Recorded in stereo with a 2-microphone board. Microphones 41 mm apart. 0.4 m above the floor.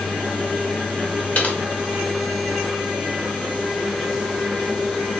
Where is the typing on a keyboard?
35° left (ahead or behind), 1.0 m.